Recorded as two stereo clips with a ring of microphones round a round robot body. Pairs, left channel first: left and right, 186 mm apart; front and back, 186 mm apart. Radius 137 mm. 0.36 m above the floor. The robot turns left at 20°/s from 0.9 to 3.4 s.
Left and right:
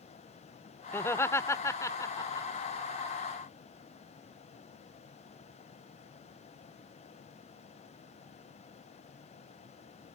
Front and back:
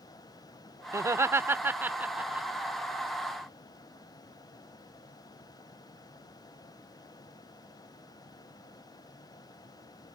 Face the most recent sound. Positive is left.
turn(degrees=90)